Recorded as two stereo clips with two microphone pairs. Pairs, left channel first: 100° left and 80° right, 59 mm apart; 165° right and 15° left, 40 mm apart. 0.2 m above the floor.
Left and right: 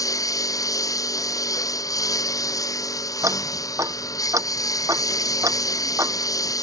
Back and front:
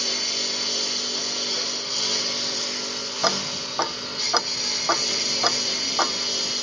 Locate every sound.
0.0 s a lawn mower: 110° left; by 6.6 s 100° left
3.2 s ticking: 60° right